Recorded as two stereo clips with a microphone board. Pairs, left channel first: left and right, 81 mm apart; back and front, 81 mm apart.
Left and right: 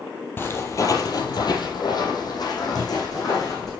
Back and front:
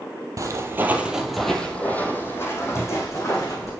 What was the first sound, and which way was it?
Footsteps, 30° left.